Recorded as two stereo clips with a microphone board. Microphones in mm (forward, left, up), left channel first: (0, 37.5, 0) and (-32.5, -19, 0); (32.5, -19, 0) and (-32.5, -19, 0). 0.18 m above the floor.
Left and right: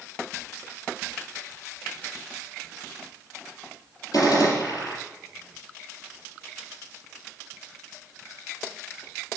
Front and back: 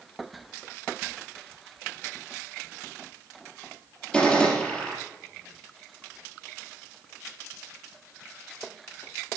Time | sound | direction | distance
4.1 | a gunshot | 75° left | 4 m